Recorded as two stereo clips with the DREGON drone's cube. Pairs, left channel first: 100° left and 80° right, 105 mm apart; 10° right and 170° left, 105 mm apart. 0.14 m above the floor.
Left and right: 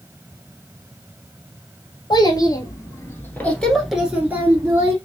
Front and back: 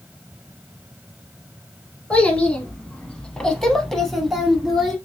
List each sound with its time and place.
2.1 s a child speaking: 65° left, 1.4 m; by 5.0 s 105° right, 1.0 m